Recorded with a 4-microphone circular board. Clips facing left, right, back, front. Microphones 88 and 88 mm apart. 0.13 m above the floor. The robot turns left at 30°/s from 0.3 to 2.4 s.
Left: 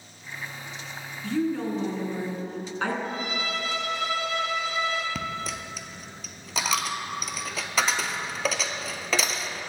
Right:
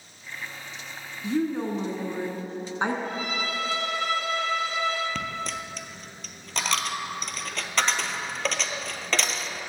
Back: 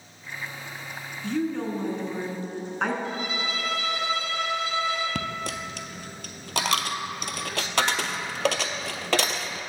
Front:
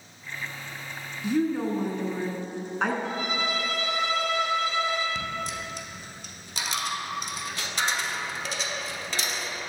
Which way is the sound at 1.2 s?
55° right.